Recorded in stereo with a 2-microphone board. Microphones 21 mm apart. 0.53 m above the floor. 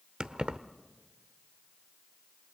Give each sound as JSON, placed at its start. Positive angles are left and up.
{"t": 0.2, "sound": "keys jangling", "side_deg": -45, "distance_m": 0.8}